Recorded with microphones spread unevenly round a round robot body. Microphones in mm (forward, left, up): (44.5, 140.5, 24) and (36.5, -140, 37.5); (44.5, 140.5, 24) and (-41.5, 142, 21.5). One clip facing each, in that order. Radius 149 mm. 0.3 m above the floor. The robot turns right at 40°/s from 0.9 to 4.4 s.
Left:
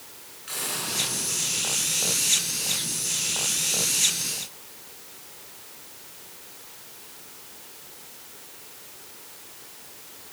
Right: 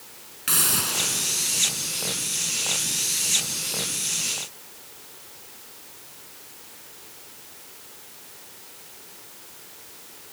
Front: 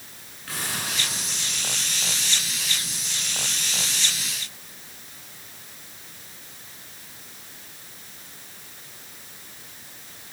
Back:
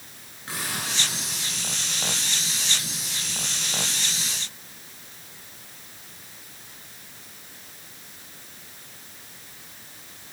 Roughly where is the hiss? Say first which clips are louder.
Right 4 dB, even; right.